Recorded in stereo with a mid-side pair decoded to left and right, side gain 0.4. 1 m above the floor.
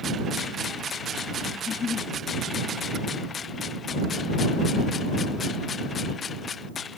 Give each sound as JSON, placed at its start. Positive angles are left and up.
{"t": 1.5, "sound": "a giggle", "azimuth_deg": 55}